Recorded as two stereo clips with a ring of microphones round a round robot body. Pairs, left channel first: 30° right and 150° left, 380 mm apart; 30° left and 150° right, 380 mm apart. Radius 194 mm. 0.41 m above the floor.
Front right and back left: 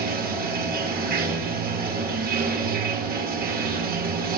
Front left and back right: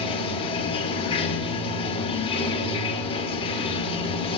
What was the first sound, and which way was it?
Running water, 100° left.